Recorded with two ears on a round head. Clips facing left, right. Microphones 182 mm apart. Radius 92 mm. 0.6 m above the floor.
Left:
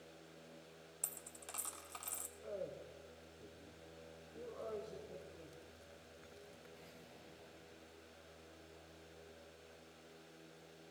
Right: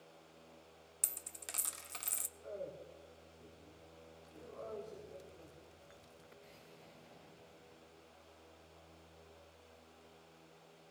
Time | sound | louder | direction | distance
1.0 | a dropped coin | right 1 dB | 25° right (ahead or behind) | 0.6 m
2.4 | a man speaking | even | 40° left (ahead or behind) | 2.5 m